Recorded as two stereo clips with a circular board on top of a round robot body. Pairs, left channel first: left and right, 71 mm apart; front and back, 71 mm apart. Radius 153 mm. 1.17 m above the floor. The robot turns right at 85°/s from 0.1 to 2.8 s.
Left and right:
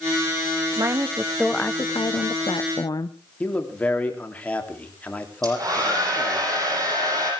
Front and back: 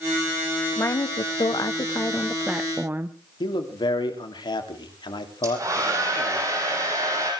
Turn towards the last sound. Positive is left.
turn(degrees=-130)